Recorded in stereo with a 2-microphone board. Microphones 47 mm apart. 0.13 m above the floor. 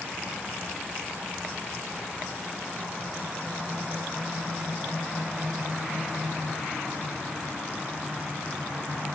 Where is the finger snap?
I don't hear a finger snap.